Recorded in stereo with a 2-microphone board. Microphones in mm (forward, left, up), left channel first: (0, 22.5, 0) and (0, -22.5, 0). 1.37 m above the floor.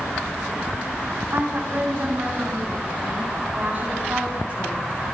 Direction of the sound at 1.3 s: 40° right (ahead or behind).